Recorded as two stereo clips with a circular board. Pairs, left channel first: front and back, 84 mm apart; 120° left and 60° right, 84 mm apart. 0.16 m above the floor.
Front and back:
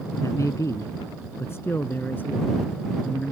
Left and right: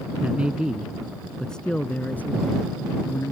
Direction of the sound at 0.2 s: 5° left.